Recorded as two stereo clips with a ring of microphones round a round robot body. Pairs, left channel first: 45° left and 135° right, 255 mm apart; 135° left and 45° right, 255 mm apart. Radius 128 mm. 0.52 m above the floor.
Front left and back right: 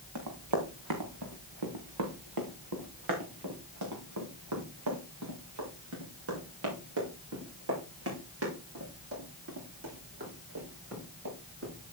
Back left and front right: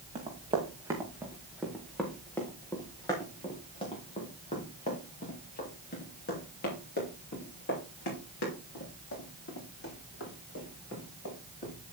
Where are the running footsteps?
115° right, 3 m; by 11.7 s straight behind, 9 m.